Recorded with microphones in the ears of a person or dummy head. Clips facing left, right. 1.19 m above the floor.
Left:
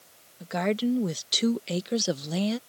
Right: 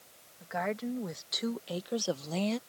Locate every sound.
0.4 s a woman speaking: 45° left (ahead or behind); by 2.6 s 5° left (ahead or behind)